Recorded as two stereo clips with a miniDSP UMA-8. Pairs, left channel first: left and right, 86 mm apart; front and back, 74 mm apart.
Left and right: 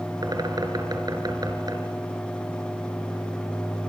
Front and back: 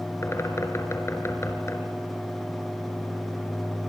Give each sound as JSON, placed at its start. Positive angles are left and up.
{"t": 0.2, "sound": "a bird", "azimuth_deg": -50, "distance_m": 4.0}